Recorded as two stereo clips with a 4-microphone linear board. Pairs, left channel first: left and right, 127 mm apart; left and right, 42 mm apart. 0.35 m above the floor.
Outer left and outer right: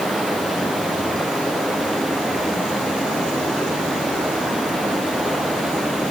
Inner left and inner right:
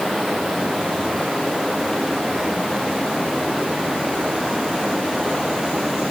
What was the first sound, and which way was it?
Running water, centre (ahead or behind).